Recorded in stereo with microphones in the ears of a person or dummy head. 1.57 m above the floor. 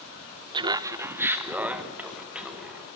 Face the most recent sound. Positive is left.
turn(degrees=-5)  # may be behind; listen again after turning